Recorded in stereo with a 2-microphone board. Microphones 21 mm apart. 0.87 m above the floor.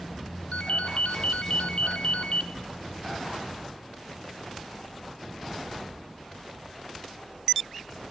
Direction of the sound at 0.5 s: 60° left (ahead or behind).